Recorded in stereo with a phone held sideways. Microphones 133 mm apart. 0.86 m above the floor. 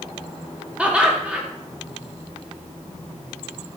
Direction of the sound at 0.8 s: 10° right (ahead or behind).